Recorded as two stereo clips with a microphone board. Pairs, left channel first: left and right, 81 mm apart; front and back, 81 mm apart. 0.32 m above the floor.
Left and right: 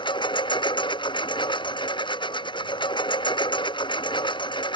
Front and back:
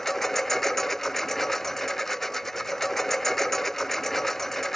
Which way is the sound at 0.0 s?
85° left.